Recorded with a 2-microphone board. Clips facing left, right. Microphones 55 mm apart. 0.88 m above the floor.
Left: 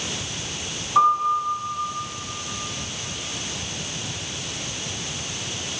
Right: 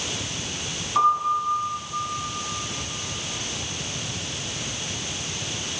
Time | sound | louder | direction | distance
0.9 | a piano | left 2 dB | centre (ahead or behind) | 2.5 m